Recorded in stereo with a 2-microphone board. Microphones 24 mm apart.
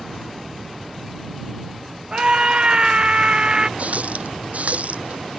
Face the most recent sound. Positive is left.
turn(degrees=-70)  # may be behind; listen again after turning